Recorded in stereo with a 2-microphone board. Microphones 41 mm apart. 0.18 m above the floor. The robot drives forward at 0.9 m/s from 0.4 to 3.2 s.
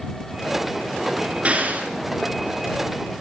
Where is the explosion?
35° right (ahead or behind), 1.9 m; by 1.9 s 40° right (ahead or behind), 1.7 m.